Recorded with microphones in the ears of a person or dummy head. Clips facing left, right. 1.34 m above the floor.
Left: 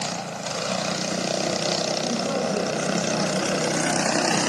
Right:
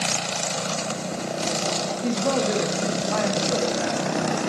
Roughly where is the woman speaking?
Right.